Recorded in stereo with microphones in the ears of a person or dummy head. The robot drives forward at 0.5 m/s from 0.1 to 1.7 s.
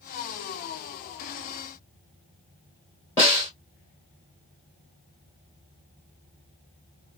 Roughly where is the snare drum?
Centre.